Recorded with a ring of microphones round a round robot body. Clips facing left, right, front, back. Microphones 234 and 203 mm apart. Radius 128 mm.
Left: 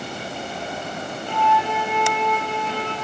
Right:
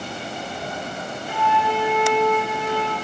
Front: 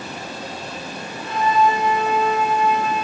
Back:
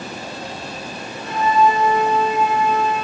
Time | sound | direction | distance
1.3 | a flute | 175° right | 3.5 m